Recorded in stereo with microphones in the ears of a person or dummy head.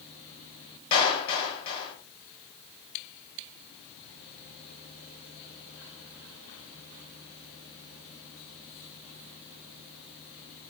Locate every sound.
0.9 s a clap: 35° left (ahead or behind), 7.5 m